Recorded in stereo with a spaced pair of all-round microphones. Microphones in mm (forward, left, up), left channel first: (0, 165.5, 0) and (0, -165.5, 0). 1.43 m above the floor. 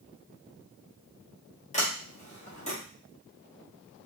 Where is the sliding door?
20° left (ahead or behind), 1.1 m.